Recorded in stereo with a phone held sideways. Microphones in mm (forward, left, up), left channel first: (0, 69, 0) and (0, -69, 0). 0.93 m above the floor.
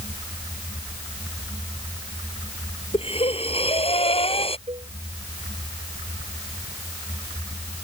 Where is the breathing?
45° left (ahead or behind).